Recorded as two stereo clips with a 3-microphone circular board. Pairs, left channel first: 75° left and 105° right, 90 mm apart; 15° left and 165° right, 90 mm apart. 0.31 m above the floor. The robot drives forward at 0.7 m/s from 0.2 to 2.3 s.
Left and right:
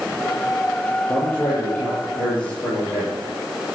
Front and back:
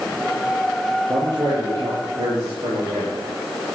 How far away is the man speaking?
About 9 m.